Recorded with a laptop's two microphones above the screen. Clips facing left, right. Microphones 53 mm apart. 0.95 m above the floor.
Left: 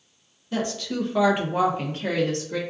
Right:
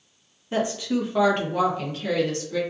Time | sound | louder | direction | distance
0.5 | a woman speaking | right 3 dB | 25° right (ahead or behind) | 1.0 m